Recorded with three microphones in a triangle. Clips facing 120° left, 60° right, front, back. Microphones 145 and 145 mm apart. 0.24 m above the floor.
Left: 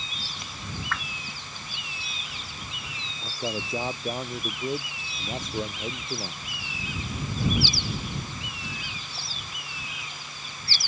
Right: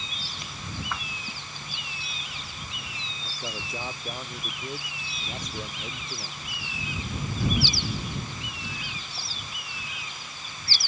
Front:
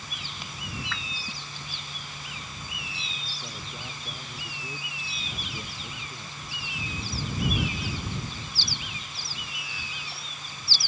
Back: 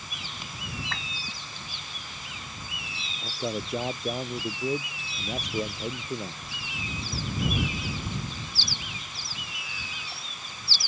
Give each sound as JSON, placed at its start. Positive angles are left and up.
{"t": 0.9, "sound": "a whoosh", "azimuth_deg": -135}
{"t": 3.2, "sound": "a man speaking", "azimuth_deg": -175}